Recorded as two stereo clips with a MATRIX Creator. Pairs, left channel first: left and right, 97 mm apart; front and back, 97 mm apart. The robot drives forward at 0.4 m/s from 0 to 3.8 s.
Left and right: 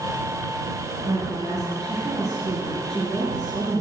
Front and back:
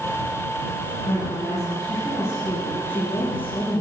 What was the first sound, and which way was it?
A woman speaking, 50° right.